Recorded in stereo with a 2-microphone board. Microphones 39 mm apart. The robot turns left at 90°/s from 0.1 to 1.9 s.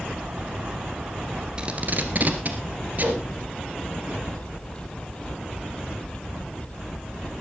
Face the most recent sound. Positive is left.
turn(degrees=-40)  # may be behind; listen again after turning